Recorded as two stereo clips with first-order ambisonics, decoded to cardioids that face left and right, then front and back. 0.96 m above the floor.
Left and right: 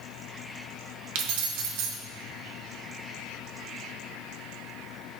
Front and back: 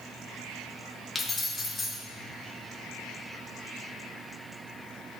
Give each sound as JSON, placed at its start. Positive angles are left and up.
{"t": 1.1, "sound": "keys jangling", "azimuth_deg": -80, "distance_m": 1.0}